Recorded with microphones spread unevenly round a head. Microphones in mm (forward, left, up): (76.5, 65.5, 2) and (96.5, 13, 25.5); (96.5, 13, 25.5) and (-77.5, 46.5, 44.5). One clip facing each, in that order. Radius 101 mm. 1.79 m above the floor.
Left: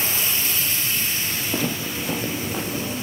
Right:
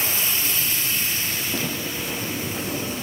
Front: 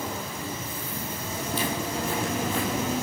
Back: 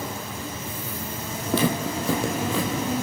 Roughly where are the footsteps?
Behind.